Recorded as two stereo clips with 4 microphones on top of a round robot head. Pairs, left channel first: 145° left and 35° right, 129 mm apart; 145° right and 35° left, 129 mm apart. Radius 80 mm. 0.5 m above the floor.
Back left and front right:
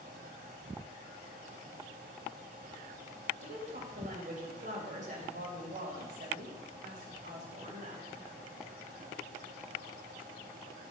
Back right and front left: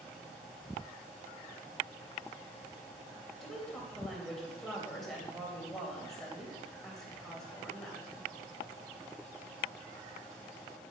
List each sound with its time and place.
3.4 s a woman speaking: 55° right, 3 m